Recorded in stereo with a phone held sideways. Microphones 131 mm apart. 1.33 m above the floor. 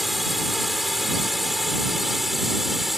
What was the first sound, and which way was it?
A drone, centre (ahead or behind).